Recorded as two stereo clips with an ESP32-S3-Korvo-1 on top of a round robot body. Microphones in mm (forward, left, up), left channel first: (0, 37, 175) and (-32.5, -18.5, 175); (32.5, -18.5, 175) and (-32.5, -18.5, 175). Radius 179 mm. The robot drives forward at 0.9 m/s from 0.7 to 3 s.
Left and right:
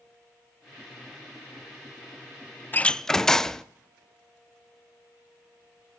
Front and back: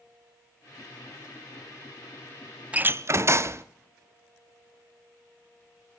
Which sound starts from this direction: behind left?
A door slam, at 2.7 s.